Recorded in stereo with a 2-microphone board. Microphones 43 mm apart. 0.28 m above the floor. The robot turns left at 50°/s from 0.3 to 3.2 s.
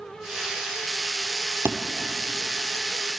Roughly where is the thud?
Right.